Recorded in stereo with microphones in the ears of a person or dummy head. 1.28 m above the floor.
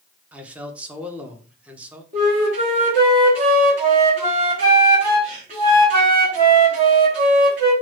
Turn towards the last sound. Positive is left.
turn(degrees=-40)  # may be behind; listen again after turning